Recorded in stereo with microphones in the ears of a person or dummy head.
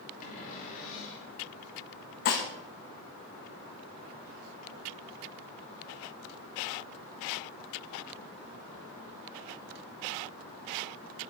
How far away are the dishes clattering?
About 1.2 m.